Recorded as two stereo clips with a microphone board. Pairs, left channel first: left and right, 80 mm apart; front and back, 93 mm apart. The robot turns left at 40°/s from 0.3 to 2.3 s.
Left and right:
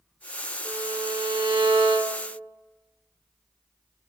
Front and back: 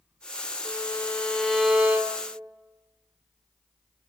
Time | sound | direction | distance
0.7 | a violin | 55° right | 0.6 m